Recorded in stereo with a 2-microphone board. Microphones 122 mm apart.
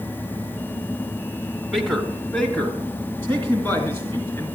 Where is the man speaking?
Centre (ahead or behind), 1.9 m; by 4.5 s 20° left (ahead or behind), 4.5 m.